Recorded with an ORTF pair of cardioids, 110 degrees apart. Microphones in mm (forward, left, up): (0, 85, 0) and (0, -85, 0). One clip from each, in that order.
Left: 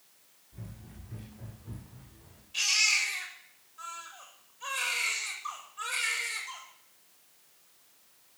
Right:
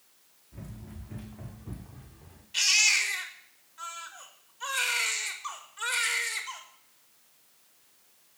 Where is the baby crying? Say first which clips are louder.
Right 3 dB; 50° right, 4.5 m.